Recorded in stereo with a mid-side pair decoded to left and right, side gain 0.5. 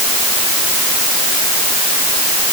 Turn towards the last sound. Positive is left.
No sound to turn to.